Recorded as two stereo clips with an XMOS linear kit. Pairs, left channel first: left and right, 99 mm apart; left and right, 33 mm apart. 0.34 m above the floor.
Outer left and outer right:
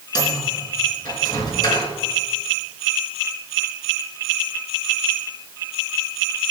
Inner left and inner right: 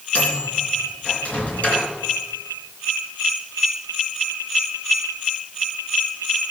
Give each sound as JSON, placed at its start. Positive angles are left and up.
{"t": 0.1, "sound": "a microwave", "side_deg": 45, "distance_m": 3.5}